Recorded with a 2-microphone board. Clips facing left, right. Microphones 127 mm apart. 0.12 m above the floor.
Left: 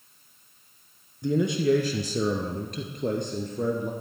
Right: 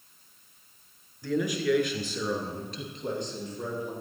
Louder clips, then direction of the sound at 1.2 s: Left 4 dB; 20° left (ahead or behind).